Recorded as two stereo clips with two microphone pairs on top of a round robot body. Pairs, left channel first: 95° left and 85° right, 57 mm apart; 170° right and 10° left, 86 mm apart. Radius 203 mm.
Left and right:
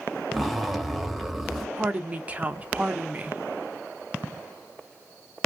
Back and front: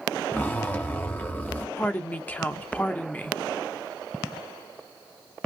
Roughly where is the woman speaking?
Behind right.